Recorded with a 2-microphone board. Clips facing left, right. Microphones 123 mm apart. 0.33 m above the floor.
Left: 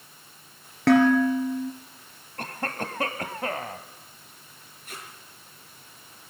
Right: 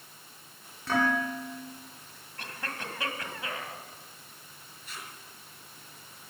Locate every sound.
0.9 s dishes clattering: 75° left (ahead or behind), 4 m
2.4 s a cough: 50° left (ahead or behind), 1.8 m
4.8 s tape being pulled: 50° left (ahead or behind), 5.5 m